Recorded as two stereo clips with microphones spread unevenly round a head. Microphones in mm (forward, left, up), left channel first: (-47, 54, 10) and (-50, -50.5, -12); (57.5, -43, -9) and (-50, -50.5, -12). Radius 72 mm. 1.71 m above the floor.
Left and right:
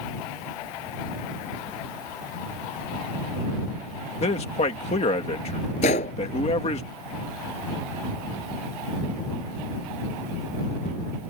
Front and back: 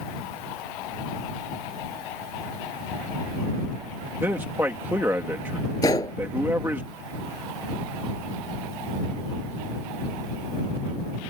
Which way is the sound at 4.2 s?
105° left.